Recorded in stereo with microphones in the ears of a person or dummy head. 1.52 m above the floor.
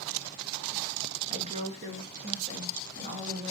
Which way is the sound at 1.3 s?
35° right (ahead or behind).